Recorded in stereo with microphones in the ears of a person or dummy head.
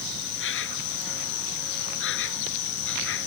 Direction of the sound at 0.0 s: 70° left (ahead or behind).